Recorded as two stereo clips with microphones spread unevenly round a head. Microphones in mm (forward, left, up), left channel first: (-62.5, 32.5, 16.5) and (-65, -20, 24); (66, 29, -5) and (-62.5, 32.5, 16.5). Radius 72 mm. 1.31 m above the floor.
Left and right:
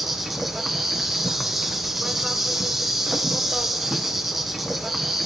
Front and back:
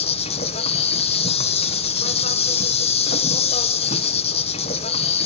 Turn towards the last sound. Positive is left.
turn(degrees=0)